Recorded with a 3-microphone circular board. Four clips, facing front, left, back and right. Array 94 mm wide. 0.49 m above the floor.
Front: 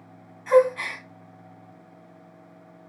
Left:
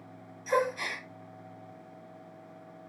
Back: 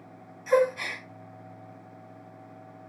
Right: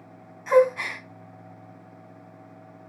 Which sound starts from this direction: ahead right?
A gasp, at 0.5 s.